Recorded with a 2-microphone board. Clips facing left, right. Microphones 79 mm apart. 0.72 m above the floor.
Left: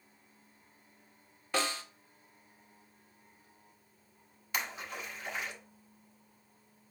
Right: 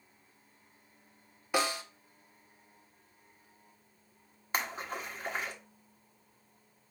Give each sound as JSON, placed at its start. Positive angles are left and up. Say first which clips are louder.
{"t": 1.5, "sound": "a snare drum", "louder": "right 3 dB", "side_deg": -15, "distance_m": 0.7}
{"t": 4.5, "sound": "a splash", "louder": "right 3 dB", "side_deg": -40, "distance_m": 1.0}